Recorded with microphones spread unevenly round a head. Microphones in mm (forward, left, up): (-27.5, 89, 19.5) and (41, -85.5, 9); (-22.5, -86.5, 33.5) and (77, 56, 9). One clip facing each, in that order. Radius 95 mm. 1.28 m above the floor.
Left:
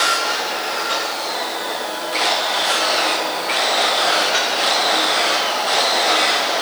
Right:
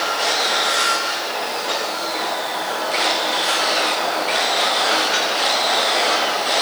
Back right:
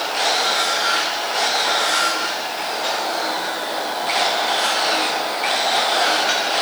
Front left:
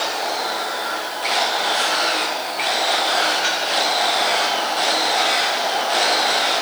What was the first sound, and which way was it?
Only background noise.